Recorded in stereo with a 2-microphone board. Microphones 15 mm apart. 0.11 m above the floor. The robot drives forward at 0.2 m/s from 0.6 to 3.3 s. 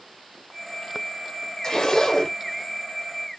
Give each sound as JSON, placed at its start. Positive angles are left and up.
{"t": 1.6, "sound": "a zipper", "side_deg": 50, "distance_m": 1.6}